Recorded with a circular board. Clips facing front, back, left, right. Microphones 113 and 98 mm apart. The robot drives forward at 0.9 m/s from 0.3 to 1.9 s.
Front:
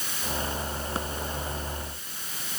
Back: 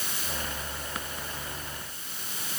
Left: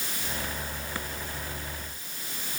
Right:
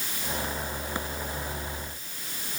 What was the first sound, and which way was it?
Only background noise.